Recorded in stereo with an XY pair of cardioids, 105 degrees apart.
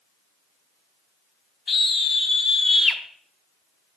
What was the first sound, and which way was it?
A scream, 35° left.